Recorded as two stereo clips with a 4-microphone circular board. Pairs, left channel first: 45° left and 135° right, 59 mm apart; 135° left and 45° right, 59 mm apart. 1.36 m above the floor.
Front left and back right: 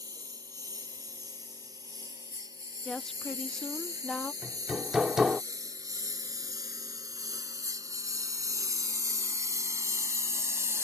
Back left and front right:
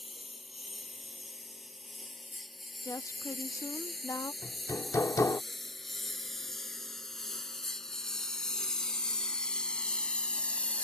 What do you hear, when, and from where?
0.0 s a lawn mower: 135° right; by 10.8 s 160° right
2.9 s a woman speaking: 125° left
4.4 s hammering: 145° left